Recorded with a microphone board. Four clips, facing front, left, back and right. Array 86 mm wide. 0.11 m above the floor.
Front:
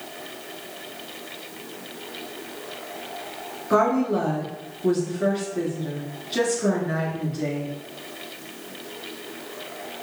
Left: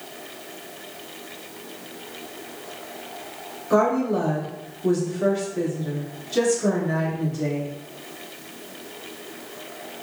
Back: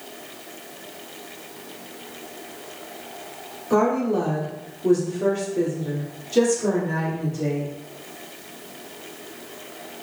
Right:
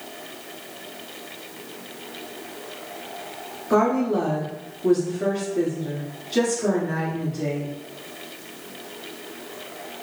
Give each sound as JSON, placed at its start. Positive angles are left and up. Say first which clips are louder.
{"t": 3.7, "sound": "a woman speaking", "louder": "even, even", "azimuth_deg": -20, "distance_m": 1.3}